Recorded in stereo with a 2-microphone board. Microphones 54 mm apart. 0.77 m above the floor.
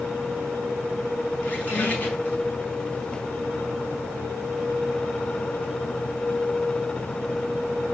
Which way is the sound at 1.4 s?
35° left (ahead or behind).